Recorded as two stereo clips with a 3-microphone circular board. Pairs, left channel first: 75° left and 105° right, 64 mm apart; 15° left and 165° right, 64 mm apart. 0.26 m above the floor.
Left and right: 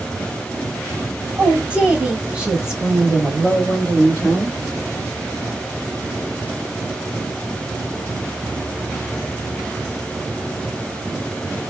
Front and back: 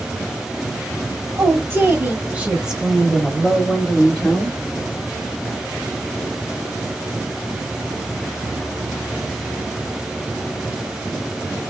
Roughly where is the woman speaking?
Behind.